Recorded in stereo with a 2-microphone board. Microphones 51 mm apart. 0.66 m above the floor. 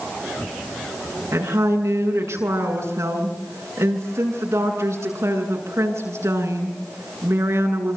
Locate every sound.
1.3 s a woman speaking: 85° right, 8 m